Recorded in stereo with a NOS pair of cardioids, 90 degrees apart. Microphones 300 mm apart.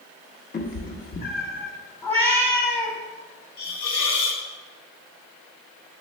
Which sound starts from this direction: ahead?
A cat meowing, at 2.0 s.